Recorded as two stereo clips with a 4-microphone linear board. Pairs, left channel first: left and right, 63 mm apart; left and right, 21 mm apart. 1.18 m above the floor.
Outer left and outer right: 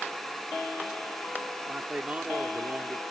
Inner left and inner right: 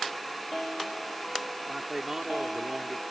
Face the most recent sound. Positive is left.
turn(degrees=-20)  # may be behind; listen again after turning